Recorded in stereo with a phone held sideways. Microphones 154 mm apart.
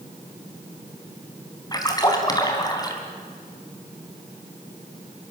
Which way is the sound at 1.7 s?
25° left (ahead or behind).